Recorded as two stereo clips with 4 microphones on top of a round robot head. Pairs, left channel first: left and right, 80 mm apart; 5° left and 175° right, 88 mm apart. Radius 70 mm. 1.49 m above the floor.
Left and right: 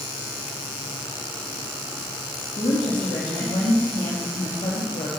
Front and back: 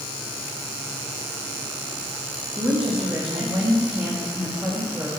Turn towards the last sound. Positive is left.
turn(degrees=115)